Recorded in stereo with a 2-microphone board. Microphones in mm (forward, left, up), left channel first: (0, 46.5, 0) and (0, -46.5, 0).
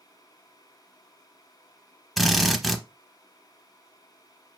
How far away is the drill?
About 0.8 m.